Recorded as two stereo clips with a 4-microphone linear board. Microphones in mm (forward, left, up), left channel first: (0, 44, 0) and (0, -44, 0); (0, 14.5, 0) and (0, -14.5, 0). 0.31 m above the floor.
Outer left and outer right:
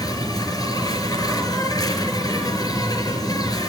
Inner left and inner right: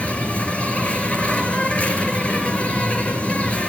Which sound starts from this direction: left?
An insect, at 0.0 s.